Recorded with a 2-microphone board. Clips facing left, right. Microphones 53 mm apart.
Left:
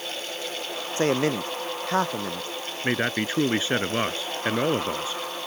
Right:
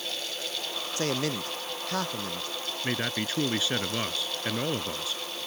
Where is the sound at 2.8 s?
30° left (ahead or behind).